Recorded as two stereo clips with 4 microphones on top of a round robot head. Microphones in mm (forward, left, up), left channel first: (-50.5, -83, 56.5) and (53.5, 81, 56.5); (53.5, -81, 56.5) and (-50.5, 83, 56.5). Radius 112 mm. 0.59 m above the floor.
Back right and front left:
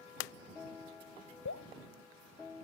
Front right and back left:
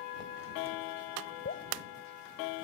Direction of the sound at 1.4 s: 105° right.